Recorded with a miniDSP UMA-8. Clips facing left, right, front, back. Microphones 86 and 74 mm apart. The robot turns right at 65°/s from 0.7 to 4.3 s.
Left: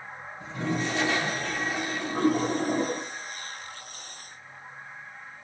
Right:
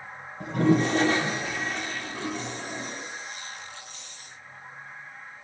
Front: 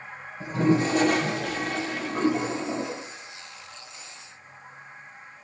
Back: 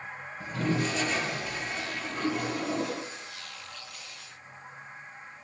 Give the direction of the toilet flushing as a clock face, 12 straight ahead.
2 o'clock.